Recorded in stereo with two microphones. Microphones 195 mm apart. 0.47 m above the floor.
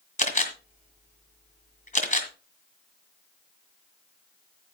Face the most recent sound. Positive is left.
turn(degrees=40)  # may be behind; listen again after turning